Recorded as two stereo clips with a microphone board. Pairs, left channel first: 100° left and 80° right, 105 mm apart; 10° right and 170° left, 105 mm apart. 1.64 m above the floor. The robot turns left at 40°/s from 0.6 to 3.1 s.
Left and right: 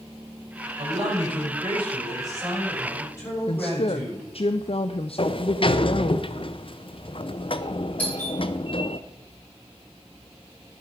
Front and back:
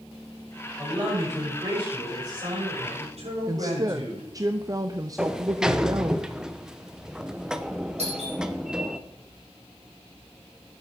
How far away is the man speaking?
About 7.5 m.